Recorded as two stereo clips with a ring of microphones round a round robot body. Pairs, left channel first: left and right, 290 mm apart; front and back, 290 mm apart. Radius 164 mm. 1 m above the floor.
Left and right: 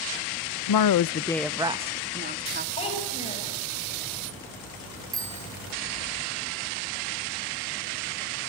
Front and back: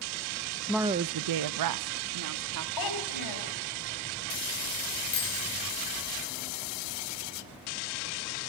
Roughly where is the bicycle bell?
Ahead.